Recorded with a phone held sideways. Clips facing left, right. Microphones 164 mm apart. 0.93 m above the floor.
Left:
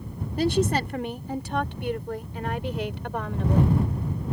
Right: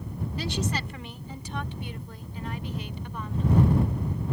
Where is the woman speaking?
50° left (ahead or behind); by 3.8 s 80° left.